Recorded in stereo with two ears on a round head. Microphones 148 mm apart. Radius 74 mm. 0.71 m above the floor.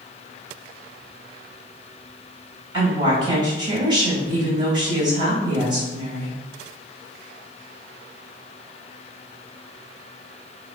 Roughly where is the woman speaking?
Right.